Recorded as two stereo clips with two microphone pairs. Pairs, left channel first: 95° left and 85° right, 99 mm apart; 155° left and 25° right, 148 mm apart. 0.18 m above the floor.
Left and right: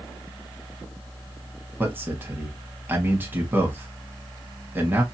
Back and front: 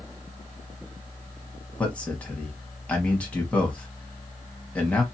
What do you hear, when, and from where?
1.8 s a man speaking: 130° right, 1.1 m